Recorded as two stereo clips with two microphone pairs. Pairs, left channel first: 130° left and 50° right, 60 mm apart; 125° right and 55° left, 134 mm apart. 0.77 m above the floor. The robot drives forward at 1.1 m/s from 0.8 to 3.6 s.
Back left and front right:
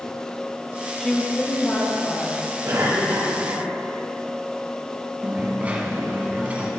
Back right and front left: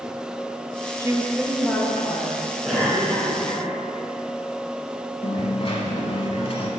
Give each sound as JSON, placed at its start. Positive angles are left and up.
{"t": 1.0, "sound": "a woman speaking", "azimuth_deg": 55, "distance_m": 0.7}
{"t": 2.6, "sound": "a cough", "azimuth_deg": -40, "distance_m": 2.5}
{"t": 5.2, "sound": "a dropped coin", "azimuth_deg": -110, "distance_m": 0.9}